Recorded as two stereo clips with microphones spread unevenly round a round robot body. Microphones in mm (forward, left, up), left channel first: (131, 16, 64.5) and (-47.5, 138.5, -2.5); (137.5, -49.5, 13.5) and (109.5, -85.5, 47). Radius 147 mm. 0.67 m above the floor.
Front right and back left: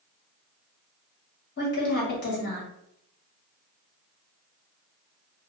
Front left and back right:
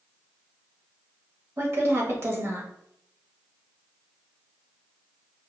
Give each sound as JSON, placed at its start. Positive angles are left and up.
{"t": 1.6, "sound": "a woman speaking", "azimuth_deg": -60, "distance_m": 1.0}